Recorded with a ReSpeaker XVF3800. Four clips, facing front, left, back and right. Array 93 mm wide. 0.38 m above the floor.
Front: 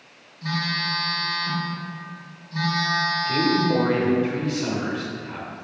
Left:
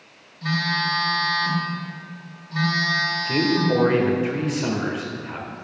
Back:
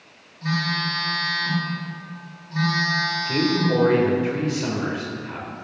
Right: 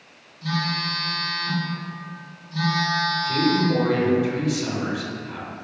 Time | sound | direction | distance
0.4 | a phone buzzing | 95° left | 2.5 m
3.2 | a man speaking | 100° left | 1.1 m